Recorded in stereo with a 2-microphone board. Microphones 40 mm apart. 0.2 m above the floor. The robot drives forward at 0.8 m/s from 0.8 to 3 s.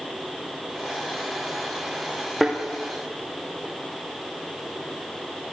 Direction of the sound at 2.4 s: 5° right (ahead or behind).